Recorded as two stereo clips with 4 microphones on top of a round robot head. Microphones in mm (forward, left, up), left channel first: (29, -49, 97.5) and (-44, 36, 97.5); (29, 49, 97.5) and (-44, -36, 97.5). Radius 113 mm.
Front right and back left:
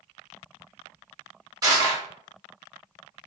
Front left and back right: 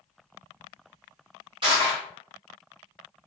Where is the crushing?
170° right, 1.4 m.